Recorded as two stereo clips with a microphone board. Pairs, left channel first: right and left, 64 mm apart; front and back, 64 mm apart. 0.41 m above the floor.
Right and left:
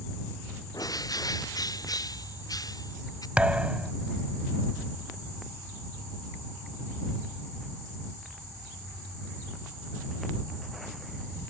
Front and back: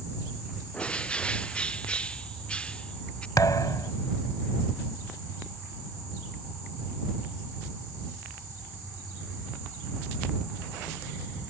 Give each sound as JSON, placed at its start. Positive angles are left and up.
{"t": 0.7, "sound": "a bird", "azimuth_deg": -75}
{"t": 3.4, "sound": "a thud", "azimuth_deg": 20}